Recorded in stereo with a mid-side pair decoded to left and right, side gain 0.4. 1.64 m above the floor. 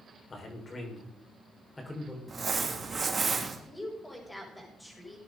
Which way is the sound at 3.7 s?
10° left.